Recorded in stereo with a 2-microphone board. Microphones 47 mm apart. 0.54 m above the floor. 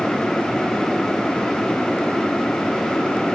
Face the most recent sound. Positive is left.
No sound to turn to.